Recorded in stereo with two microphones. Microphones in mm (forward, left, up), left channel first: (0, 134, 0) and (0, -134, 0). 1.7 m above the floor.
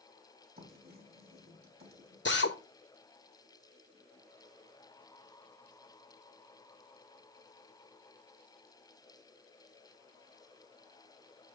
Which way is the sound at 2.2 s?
40° left (ahead or behind).